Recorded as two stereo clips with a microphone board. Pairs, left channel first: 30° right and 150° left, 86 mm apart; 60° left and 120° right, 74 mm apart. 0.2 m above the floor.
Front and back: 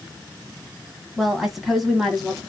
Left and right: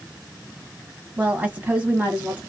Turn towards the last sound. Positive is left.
turn(degrees=-120)